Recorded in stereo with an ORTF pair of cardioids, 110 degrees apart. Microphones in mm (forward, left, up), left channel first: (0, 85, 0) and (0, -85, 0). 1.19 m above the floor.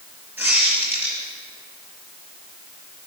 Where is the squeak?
10° right, 6.5 m.